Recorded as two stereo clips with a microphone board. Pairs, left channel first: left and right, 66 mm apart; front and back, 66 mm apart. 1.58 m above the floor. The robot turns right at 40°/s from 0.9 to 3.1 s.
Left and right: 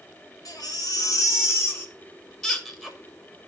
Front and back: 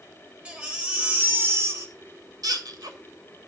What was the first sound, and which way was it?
A baby crying, 110° left.